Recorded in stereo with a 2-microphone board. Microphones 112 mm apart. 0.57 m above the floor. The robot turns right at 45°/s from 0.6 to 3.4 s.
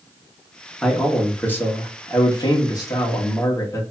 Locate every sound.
0.8 s a man speaking: straight ahead, 0.9 m; by 3.8 s 115° left, 0.9 m